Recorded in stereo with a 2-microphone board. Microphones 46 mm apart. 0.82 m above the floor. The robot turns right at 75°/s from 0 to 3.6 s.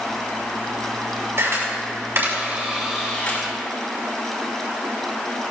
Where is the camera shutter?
55° right (ahead or behind), 5.5 m; by 3.4 s 30° left (ahead or behind), 5.5 m.